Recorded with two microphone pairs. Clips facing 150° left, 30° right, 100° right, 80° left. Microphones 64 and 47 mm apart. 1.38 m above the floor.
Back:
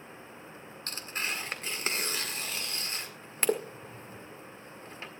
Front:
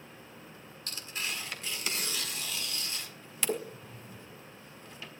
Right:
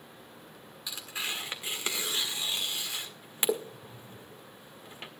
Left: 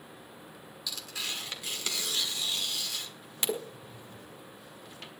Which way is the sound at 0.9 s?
160° right.